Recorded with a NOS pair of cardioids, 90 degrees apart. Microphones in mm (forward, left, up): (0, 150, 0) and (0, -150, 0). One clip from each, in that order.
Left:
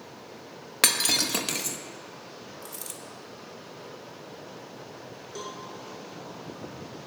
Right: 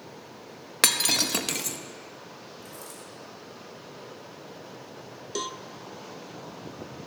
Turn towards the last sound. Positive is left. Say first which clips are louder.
# right 6 dB
turn(degrees=-55)